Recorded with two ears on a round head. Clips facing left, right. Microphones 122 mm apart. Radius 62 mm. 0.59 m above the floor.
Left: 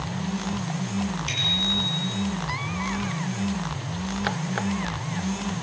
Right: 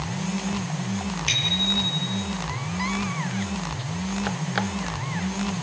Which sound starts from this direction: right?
A bicycle bell, at 1.3 s.